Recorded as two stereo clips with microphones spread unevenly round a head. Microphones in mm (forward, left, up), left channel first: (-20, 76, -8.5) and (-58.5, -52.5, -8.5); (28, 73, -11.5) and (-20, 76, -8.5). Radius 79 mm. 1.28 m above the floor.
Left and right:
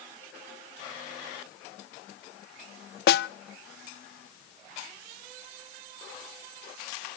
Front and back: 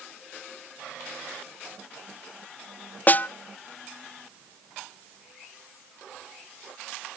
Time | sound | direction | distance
3.1 | a snare drum | 55° left | 0.5 m